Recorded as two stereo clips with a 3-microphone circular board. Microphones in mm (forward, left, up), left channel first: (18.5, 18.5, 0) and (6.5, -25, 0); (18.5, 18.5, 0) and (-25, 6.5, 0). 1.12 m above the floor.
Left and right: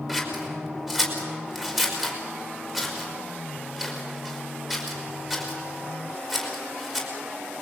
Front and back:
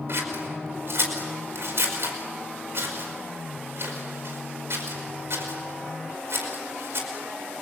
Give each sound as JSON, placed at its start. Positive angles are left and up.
{"t": 0.1, "sound": "scissors", "azimuth_deg": 175, "distance_m": 4.5}